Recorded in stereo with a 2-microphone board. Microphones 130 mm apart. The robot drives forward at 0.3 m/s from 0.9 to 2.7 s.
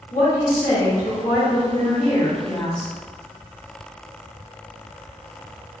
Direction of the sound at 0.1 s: 65° left (ahead or behind).